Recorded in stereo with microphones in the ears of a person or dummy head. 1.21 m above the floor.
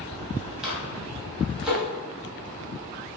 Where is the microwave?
5° right (ahead or behind), 1.7 m.